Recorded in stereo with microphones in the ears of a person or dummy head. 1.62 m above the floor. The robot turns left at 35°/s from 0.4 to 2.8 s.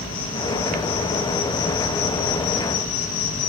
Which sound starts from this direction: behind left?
An insect, at 0.0 s.